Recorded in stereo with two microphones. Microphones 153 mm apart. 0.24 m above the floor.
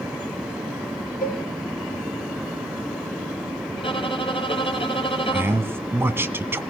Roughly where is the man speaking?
Centre.